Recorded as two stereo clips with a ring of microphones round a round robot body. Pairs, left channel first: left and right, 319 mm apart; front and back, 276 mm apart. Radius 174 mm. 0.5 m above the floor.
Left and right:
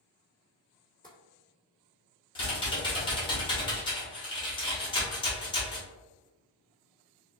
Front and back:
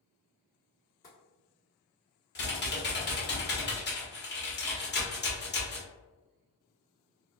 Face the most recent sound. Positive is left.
turn(degrees=20)